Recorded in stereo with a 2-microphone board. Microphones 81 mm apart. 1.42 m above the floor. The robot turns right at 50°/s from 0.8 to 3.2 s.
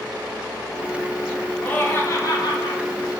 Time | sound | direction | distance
1.6 | laughter | 15° left | 0.7 m